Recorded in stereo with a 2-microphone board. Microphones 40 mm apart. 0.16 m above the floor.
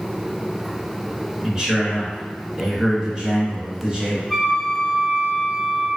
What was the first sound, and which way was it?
A man speaking, 15° right (ahead or behind).